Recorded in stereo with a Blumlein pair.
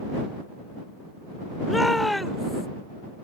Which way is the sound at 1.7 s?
Straight ahead.